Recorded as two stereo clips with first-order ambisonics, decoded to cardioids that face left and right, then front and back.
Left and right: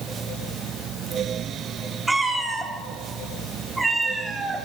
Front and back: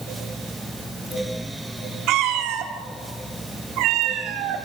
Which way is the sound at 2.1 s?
170° right.